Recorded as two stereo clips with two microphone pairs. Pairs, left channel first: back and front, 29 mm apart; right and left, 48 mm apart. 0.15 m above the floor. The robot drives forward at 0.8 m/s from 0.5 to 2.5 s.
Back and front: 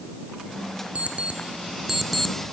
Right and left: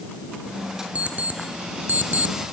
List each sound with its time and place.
0.9 s an alarm clock: 25° left, 1.1 m; by 2.4 s 115° left, 0.6 m